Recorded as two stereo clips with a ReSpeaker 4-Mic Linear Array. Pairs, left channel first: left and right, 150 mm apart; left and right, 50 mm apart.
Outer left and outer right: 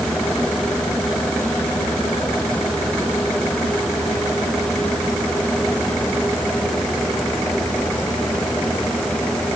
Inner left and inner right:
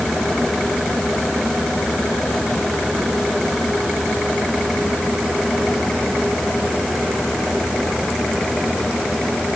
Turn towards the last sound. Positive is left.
No sound to turn to.